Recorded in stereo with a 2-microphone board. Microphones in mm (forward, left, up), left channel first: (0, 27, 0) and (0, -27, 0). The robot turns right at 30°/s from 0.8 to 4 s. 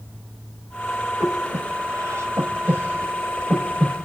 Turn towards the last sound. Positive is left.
turn(degrees=-5)  # may be behind; listen again after turning